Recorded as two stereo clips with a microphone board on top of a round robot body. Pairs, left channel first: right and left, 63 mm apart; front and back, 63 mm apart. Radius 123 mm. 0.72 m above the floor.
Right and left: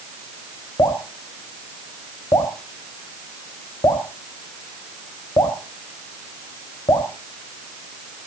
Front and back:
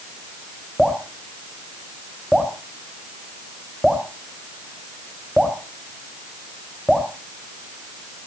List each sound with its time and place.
0.8 s dripping: 90° right, 3.5 m